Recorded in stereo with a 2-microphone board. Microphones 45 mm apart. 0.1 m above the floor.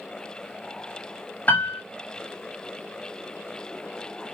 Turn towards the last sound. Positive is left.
turn(degrees=45)  # may be behind; listen again after turning